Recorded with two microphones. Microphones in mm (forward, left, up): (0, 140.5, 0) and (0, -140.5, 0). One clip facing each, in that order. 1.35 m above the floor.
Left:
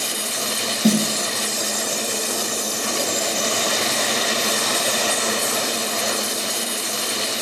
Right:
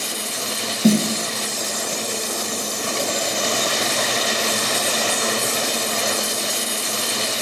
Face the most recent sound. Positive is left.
turn(degrees=-5)  # may be behind; listen again after turning